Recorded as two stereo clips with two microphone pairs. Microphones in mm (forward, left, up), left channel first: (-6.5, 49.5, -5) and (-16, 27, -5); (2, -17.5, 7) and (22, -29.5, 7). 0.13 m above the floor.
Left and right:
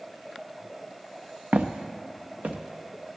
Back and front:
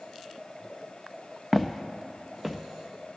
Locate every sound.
1.5 s footsteps: 120° right, 0.9 m; by 2.6 s 105° right, 1.5 m